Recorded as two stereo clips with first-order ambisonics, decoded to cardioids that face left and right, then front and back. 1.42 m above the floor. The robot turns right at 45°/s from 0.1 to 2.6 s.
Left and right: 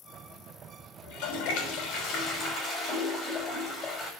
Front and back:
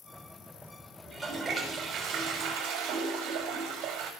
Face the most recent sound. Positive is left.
turn(degrees=155)